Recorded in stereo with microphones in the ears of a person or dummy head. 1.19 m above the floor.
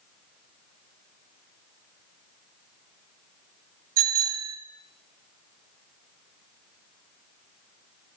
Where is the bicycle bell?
50° right (ahead or behind), 4 m.